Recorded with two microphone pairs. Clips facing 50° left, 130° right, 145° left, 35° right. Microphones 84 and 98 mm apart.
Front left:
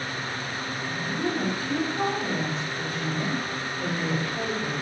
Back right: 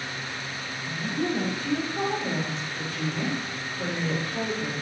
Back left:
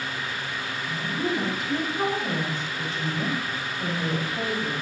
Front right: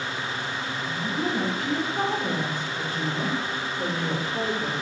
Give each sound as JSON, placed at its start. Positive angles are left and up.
{"t": 0.9, "sound": "a woman speaking", "azimuth_deg": -90, "distance_m": 4.5}